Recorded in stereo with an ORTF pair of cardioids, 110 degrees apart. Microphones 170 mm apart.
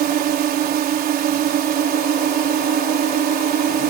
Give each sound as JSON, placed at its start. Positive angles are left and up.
{"t": 0.0, "sound": "a drone", "azimuth_deg": -65}